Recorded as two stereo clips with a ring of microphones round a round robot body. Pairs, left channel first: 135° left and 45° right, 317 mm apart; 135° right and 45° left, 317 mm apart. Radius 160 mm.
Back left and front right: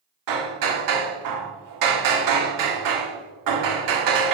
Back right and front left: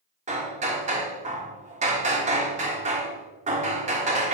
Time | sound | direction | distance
0.3 | hammering | 25° right | 1.2 m